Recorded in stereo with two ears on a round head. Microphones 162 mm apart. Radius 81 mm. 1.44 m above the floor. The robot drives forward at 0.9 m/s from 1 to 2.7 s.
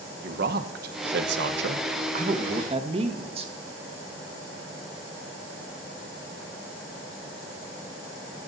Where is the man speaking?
60° right (ahead or behind), 0.9 m; by 3.5 s 35° right (ahead or behind), 1.4 m.